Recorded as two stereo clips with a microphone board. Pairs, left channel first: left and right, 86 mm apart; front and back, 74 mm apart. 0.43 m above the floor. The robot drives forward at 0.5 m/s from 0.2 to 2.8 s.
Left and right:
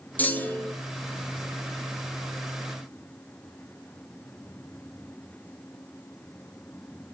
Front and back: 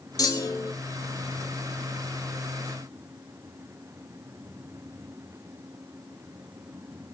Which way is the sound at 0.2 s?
20° left.